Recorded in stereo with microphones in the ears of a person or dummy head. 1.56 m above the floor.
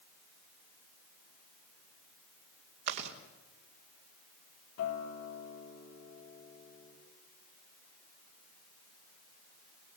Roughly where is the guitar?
Left.